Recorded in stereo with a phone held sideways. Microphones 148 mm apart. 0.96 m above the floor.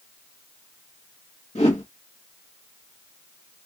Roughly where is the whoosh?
Left.